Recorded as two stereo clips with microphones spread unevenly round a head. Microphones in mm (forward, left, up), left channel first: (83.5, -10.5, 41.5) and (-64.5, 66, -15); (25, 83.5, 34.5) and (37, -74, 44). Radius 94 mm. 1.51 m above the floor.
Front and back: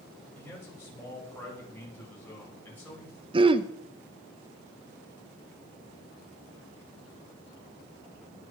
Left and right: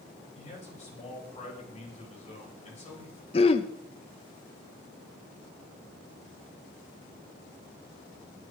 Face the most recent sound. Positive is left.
turn(degrees=85)